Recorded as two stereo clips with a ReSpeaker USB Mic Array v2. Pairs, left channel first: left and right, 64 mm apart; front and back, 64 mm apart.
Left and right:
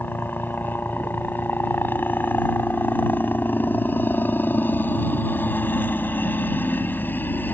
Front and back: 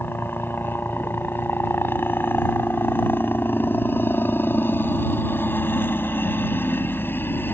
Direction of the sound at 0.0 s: 40° left.